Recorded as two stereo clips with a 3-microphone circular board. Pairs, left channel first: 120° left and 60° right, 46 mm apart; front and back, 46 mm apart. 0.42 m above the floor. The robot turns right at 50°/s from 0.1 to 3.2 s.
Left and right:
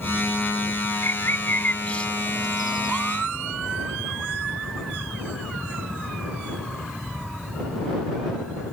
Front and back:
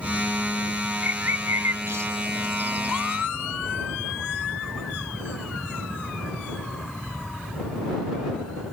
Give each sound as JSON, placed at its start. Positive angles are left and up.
{"t": 1.0, "sound": "a bird", "azimuth_deg": 135}